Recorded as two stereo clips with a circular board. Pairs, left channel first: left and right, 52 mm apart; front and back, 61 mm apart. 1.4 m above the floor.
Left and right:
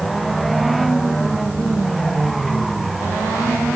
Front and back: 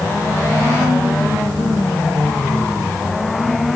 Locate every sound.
Only background noise.